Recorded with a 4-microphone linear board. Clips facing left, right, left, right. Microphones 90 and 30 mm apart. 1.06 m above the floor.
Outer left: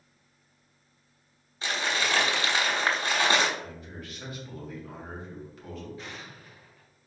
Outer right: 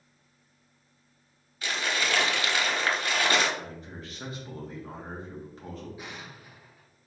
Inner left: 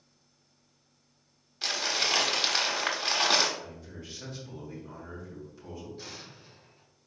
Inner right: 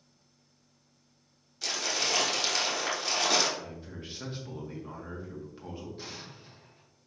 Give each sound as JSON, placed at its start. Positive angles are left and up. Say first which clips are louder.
{"t": 1.6, "sound": "crumpling", "louder": "outer left 1 dB, inner left 2 dB", "side_deg": 30, "distance_m": 1.2}
{"t": 3.6, "sound": "a man speaking", "louder": "even, inner right 1 dB", "side_deg": -35, "distance_m": 1.5}
{"t": 6.0, "sound": "an explosion", "louder": "even, inner right 1 dB", "side_deg": -15, "distance_m": 0.8}